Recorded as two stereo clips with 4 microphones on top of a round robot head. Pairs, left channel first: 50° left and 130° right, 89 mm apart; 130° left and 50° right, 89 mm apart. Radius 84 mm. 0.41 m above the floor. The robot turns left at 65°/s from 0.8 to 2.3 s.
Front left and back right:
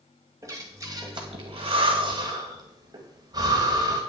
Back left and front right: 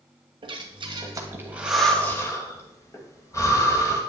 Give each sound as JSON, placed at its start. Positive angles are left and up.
{"t": 0.4, "sound": "breathing", "azimuth_deg": -80, "distance_m": 2.0}